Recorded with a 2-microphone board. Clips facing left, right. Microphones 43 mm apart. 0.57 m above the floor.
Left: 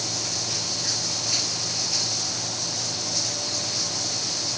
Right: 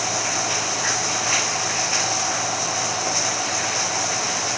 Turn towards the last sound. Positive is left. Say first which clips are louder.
# right 8 dB
turn(degrees=-50)  # may be behind; listen again after turning